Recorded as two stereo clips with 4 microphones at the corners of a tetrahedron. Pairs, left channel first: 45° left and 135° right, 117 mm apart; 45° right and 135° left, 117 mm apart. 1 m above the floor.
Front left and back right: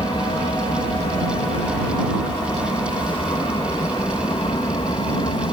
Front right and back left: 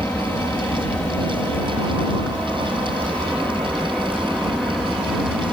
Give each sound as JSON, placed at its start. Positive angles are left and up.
{"t": 0.0, "sound": "an aircraft", "azimuth_deg": 20}